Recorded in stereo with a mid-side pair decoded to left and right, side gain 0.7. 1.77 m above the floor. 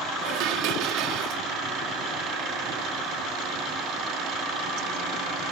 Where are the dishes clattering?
65° right.